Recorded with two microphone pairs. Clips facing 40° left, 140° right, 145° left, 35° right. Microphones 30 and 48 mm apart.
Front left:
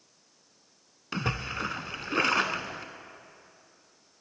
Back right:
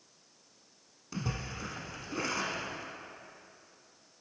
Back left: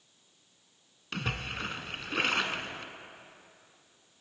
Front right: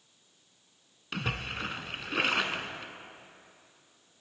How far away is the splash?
About 0.6 m.